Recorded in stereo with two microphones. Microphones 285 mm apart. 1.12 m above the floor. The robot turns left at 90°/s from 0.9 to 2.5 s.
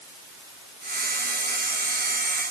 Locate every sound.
Only background noise.